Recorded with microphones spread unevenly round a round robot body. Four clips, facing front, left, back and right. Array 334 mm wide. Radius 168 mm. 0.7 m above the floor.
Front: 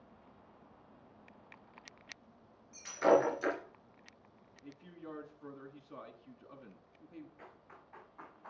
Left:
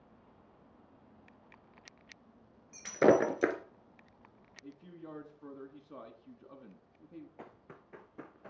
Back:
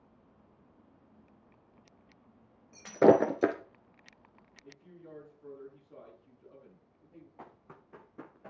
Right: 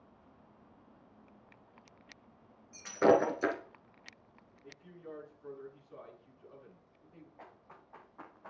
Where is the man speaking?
50° left, 7 m.